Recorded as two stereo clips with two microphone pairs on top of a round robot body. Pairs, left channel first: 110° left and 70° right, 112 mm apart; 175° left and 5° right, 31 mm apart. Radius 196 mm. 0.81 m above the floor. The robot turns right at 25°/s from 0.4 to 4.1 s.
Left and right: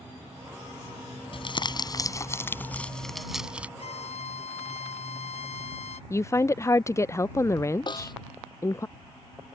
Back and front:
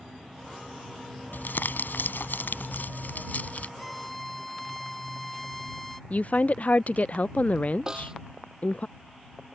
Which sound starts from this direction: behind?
A woman speaking, at 6.1 s.